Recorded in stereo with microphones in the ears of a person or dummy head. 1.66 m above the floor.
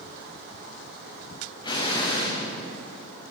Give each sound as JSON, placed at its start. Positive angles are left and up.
{"t": 1.6, "sound": "an explosion", "side_deg": 25, "distance_m": 1.9}